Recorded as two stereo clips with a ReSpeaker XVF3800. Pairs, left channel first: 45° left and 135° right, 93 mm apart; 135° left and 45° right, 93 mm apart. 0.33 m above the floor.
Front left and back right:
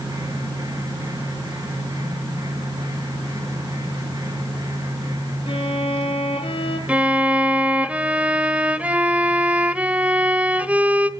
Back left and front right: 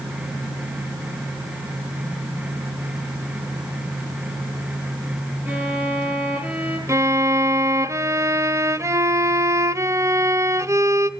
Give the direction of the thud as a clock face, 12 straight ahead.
No thud in this recording.